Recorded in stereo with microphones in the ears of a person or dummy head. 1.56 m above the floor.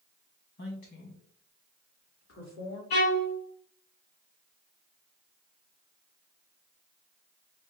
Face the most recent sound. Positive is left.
turn(degrees=55)  # may be behind; listen again after turning